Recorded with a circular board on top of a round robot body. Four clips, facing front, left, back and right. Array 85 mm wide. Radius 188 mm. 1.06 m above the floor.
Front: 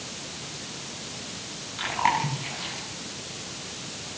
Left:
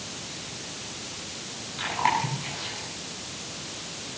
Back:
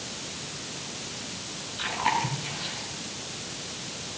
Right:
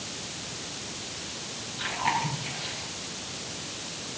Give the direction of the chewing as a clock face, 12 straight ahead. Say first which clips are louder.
Left 3 dB, front 2 dB; 11 o'clock.